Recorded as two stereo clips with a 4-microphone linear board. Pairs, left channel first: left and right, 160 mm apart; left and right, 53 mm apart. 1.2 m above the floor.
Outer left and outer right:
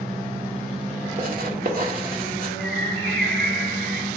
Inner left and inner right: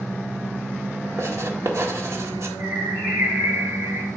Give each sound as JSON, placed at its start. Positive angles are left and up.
{"t": 1.2, "sound": "writing", "side_deg": -65, "distance_m": 1.7}
{"t": 2.6, "sound": "a bird", "side_deg": -85, "distance_m": 4.0}